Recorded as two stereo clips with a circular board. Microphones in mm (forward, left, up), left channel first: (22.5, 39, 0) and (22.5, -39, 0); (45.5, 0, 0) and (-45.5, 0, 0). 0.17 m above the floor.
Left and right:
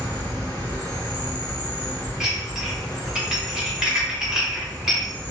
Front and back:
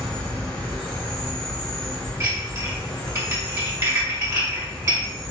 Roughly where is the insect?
Left.